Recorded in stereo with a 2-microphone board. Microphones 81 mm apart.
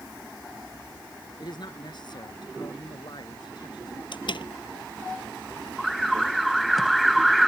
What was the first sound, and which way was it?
A man speaking, 60° left (ahead or behind).